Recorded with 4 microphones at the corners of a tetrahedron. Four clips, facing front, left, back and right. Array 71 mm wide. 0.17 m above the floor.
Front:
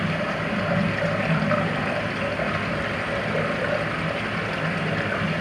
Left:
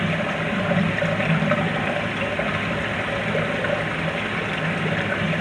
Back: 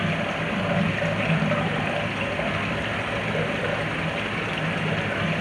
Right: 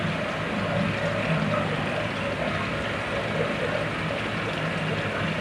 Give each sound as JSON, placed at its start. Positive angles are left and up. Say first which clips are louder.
{"t": 0.0, "sound": "running water", "louder": "left 4 dB, even", "azimuth_deg": 75, "distance_m": 2.5}